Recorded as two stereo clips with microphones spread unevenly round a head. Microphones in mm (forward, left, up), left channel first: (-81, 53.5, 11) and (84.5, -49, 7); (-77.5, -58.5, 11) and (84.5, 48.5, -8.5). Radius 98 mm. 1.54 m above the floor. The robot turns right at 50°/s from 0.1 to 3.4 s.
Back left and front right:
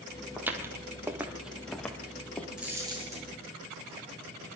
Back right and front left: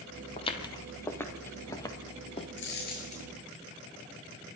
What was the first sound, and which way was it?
Footsteps, 115° right.